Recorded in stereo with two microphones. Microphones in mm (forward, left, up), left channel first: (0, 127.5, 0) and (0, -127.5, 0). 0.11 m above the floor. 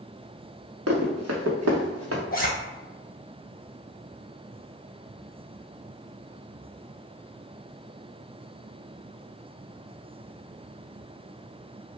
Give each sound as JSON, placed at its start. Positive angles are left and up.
{"t": 0.9, "sound": "running footsteps", "side_deg": -70, "distance_m": 1.0}
{"t": 2.3, "sound": "a zipper", "side_deg": 35, "distance_m": 0.6}